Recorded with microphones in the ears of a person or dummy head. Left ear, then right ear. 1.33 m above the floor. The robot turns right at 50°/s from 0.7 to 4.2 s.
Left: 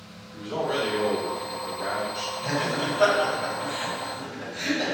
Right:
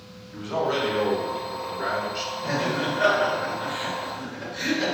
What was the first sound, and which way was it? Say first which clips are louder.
A man speaking: right 2 dB; 95° right.